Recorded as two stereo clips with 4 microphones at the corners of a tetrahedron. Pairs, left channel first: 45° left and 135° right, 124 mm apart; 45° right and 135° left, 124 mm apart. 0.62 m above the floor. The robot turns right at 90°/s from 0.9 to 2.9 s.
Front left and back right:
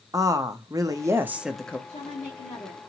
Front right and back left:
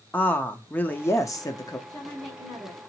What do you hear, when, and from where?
0.1 s a woman speaking: 105° right, 0.6 m; by 1.8 s 25° right, 0.6 m
1.9 s a woman speaking: 20° left, 1.3 m; by 2.8 s 100° left, 1.3 m